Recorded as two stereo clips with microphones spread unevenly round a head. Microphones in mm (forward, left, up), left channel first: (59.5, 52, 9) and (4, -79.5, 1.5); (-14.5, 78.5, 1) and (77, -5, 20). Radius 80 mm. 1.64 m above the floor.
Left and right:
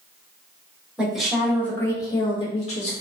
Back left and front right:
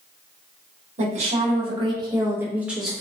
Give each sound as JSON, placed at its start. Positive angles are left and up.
{"t": 1.0, "sound": "a woman speaking", "azimuth_deg": -30, "distance_m": 1.0}